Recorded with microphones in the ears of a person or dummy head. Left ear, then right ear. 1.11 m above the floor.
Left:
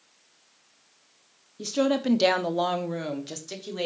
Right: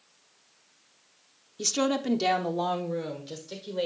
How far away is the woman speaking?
About 0.5 m.